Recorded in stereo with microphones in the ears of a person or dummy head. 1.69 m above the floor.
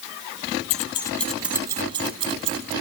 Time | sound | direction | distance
0.7 | keys jangling | 40° left (ahead or behind) | 1.1 m